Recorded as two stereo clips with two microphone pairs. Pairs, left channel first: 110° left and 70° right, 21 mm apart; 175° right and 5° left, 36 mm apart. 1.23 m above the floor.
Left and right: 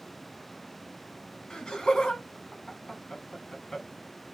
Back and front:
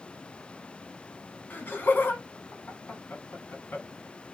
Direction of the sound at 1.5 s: 155° left.